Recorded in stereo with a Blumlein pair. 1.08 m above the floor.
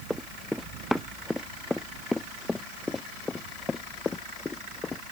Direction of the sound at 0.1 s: 5° left.